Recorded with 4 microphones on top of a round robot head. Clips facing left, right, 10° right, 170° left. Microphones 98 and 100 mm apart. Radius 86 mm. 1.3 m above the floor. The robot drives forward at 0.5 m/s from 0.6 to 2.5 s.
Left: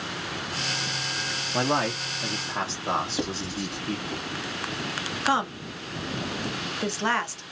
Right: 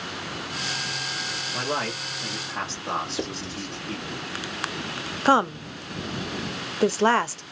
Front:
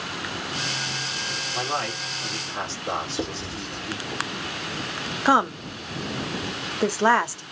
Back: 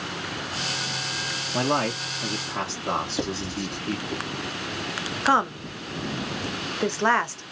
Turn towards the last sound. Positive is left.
turn(degrees=-80)